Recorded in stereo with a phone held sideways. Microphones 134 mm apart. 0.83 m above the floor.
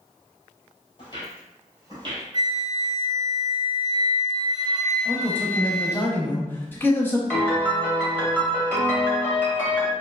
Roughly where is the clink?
I don't hear a clink.